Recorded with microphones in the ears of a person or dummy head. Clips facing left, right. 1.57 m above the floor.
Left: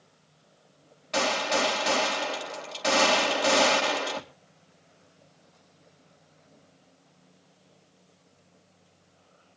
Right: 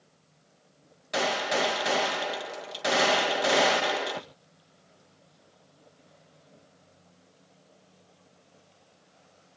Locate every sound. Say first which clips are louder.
1.1 s a gunshot: left 1 dB; 10° right (ahead or behind), 2 m